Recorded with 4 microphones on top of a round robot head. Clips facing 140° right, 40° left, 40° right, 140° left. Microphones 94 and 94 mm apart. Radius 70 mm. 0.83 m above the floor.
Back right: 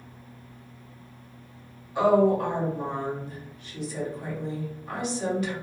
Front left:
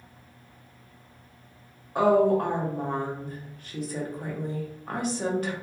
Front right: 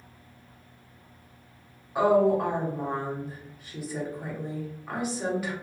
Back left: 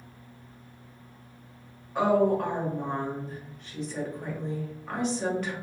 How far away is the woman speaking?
About 1.0 m.